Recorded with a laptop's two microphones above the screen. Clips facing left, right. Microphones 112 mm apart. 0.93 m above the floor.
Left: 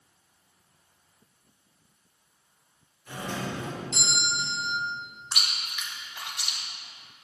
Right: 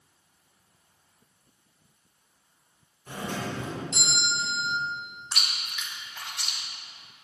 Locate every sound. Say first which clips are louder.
3.1 s a doorbell: right 1 dB; 40° right (ahead or behind), 1.6 m
5.3 s chewing: left 1 dB; 10° left (ahead or behind), 1.0 m